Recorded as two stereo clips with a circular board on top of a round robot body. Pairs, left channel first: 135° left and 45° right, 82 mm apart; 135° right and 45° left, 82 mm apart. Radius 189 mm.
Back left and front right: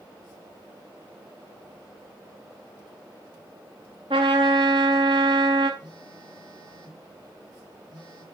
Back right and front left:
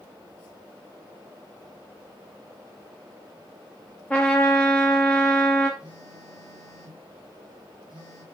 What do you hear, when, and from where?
4.1 s a trumpet: 60° right, 0.5 m
5.8 s a phone buzzing: 85° right, 5.5 m